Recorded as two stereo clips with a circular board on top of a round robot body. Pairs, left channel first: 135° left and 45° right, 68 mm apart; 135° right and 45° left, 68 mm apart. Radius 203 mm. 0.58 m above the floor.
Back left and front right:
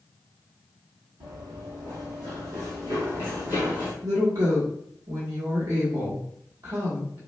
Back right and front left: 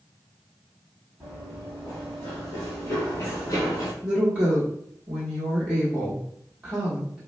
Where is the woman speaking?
35° right, 1.3 m.